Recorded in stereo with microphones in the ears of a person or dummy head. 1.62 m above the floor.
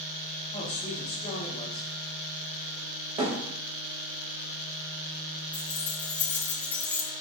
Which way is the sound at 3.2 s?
35° right (ahead or behind).